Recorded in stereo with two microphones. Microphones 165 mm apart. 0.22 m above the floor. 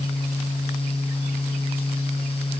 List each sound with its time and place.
Only background noise.